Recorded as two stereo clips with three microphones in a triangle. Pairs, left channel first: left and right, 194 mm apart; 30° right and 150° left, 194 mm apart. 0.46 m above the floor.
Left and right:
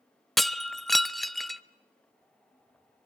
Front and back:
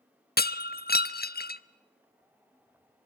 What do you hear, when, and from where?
0.4 s breaking glass: straight ahead, 0.6 m